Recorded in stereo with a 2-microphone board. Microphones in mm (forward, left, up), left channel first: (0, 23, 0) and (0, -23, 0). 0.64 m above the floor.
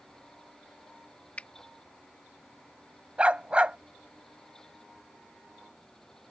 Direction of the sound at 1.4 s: 30° left (ahead or behind).